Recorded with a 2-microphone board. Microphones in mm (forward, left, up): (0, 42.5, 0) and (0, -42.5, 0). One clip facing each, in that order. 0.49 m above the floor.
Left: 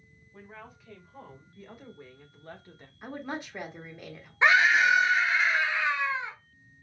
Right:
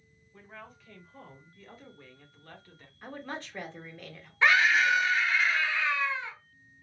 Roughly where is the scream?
Centre.